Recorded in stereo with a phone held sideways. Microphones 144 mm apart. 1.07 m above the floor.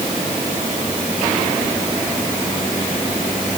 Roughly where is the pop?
I don't hear a pop.